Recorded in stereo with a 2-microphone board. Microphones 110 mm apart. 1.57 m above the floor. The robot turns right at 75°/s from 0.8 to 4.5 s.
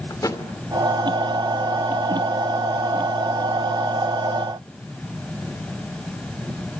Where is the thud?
35° left (ahead or behind), 2.5 m.